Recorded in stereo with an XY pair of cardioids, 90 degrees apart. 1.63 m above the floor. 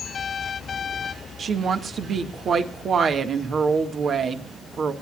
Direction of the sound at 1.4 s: 60° right.